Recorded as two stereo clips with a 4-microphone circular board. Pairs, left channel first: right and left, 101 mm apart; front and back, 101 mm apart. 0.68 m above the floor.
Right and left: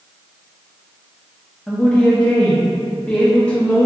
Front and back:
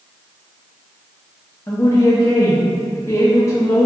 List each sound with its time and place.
1.7 s a woman speaking: 20° right, 0.5 m